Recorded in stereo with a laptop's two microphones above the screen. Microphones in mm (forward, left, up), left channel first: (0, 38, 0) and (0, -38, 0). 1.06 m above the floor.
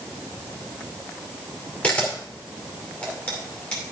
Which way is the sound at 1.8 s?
15° left (ahead or behind).